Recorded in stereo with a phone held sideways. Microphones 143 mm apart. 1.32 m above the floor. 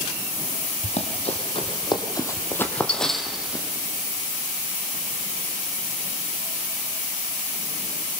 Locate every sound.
0.8 s running footsteps: 50° left (ahead or behind), 2.0 m; by 3.6 s 10° right (ahead or behind), 1.9 m